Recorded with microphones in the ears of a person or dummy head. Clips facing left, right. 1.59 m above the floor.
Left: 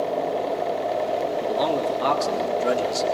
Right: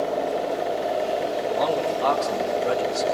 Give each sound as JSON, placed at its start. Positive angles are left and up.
{"t": 1.4, "sound": "a man speaking", "side_deg": 40, "distance_m": 3.5}